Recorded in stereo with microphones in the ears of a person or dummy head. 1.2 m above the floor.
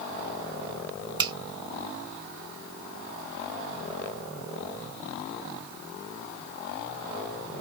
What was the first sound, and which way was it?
A finger snap, 15° right (ahead or behind).